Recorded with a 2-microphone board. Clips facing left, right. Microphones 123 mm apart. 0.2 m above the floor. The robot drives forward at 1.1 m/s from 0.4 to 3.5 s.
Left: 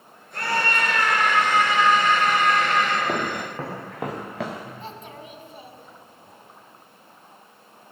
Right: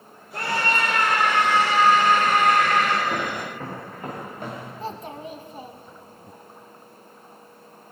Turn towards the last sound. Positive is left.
turn(degrees=-35)  # may be behind; listen again after turning